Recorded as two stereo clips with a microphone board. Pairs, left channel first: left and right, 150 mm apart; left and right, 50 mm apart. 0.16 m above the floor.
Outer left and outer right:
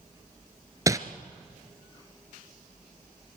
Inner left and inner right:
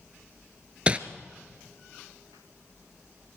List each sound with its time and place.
0.9 s crumpling: 25° right (ahead or behind), 1.3 m